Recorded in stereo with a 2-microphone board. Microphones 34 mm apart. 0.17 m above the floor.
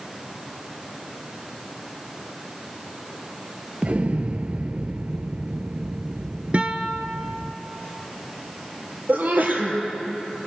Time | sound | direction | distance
3.8 | an explosion | 45° right (ahead or behind) | 0.6 m
6.5 | a guitar | 40° right (ahead or behind) | 1.3 m
9.1 | a sneeze | 60° right (ahead or behind) | 4 m